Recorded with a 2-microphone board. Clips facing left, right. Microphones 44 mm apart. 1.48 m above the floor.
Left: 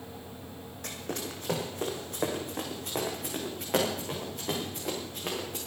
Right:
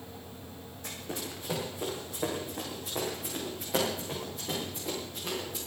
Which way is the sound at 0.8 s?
65° left (ahead or behind).